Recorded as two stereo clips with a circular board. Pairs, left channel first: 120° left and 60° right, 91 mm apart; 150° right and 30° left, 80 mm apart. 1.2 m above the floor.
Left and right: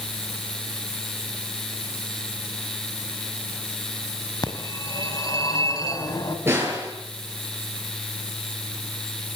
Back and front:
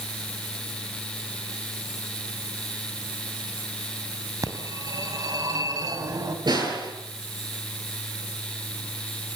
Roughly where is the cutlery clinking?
No cutlery clinking in this recording.